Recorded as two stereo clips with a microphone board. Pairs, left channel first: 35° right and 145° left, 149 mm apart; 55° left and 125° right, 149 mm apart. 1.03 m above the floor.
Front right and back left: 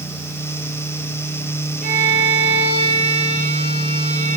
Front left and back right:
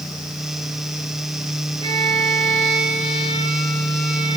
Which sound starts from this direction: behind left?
A violin, at 1.8 s.